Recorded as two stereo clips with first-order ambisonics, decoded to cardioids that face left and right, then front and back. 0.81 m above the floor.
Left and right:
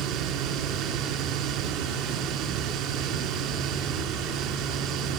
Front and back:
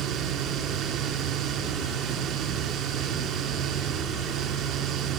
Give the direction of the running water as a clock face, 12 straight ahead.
4 o'clock.